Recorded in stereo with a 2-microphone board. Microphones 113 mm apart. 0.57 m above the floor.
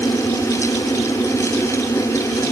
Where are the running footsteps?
I don't hear running footsteps.